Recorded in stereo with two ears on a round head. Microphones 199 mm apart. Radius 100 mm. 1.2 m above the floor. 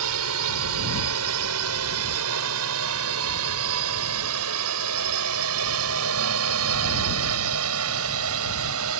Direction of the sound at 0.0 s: 80° right.